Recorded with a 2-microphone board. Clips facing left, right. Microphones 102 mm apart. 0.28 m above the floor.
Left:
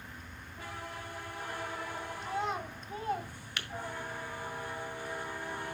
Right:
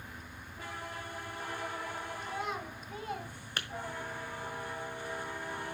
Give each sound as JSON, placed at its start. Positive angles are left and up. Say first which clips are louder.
{"t": 2.2, "sound": "a child speaking", "louder": "left 5 dB", "side_deg": 25, "distance_m": 1.9}
{"t": 3.6, "sound": "tapping", "louder": "right 2 dB", "side_deg": -35, "distance_m": 1.1}